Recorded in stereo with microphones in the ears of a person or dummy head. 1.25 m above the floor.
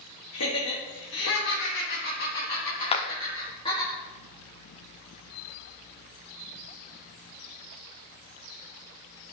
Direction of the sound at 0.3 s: 85° left.